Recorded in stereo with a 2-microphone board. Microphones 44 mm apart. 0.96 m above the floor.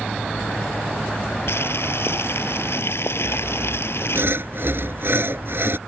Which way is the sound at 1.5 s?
65° left (ahead or behind).